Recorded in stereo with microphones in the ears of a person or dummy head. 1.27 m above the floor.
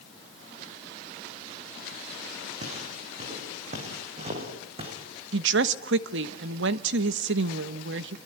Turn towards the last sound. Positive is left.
turn(degrees=-75)  # may be behind; listen again after turning